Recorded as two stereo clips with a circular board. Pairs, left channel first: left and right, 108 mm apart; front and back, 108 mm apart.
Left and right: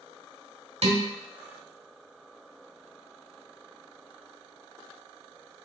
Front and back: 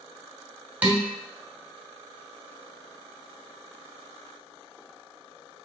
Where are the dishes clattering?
105° right, 1.2 m.